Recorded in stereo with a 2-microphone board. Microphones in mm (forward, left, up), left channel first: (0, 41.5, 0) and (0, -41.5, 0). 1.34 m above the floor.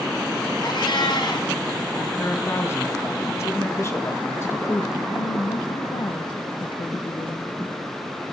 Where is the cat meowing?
65° left (ahead or behind), 3.5 m.